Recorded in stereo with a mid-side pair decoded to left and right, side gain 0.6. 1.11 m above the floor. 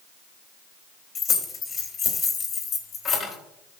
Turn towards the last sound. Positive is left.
turn(degrees=40)